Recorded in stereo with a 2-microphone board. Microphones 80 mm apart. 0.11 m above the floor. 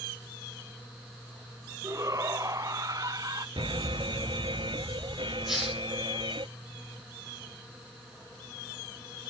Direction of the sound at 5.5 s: 5° right (ahead or behind).